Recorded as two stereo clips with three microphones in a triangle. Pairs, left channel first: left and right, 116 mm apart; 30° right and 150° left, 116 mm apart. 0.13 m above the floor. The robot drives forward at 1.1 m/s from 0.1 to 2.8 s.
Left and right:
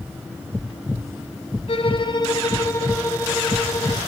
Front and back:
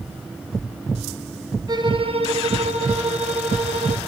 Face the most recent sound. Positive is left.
turn(degrees=150)